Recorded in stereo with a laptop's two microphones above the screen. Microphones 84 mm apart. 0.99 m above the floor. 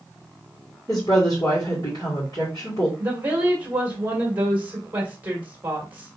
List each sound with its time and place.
0.9 s a woman speaking: 50° left (ahead or behind), 2 m
3.0 s a woman speaking: 20° right (ahead or behind), 1.8 m